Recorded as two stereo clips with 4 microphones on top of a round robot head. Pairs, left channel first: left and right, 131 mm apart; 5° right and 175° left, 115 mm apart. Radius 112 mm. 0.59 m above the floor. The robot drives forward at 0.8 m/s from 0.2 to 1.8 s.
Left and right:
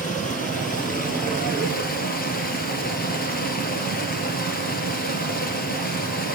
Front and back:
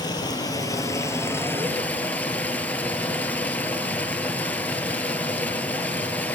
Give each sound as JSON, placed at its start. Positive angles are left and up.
{"t": 0.0, "sound": "running water", "azimuth_deg": 50, "distance_m": 3.0}